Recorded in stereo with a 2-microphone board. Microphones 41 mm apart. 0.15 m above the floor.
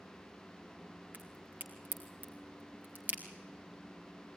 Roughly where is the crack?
Right.